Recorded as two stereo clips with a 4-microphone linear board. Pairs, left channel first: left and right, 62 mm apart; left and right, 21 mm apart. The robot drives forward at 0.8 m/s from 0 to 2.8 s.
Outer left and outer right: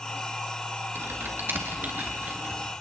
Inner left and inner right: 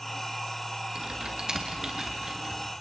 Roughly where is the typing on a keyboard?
Right.